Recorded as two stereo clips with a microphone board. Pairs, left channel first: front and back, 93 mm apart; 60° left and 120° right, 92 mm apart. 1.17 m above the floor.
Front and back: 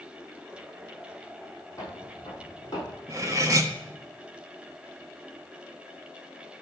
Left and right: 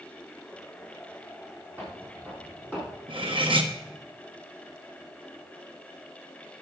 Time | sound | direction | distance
1.8 | footsteps | 55° right | 3.5 m
3.1 | cutlery clinking | 130° right | 1.0 m